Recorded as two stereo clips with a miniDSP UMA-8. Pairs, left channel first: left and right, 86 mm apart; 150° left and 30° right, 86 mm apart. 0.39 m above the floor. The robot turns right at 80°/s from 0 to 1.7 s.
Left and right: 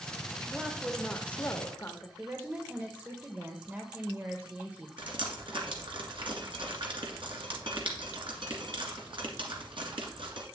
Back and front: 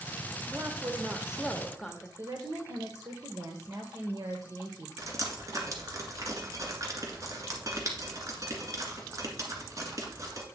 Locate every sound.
0.5 s a woman speaking: 25° right, 1.0 m; by 2.1 s 75° left, 1.0 m
2.2 s a woman speaking: 30° right, 1.1 m
5.0 s dripping: 80° right, 1.9 m